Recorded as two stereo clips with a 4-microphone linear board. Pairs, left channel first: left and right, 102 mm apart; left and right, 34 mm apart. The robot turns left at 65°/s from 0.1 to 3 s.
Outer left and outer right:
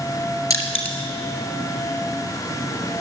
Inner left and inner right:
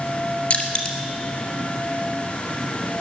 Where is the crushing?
35° left (ahead or behind), 2 m; by 1.0 s 10° left (ahead or behind), 2 m.